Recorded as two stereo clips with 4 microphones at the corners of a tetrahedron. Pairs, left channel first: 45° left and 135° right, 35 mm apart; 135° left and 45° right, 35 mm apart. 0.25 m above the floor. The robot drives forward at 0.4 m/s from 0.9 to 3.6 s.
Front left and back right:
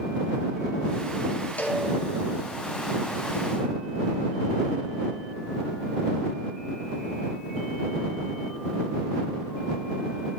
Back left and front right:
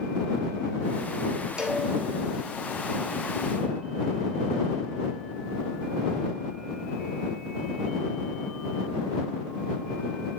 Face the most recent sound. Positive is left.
turn(degrees=125)